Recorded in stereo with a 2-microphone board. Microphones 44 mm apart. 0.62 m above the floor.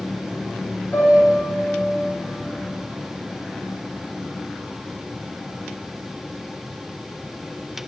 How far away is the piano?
About 2.5 m.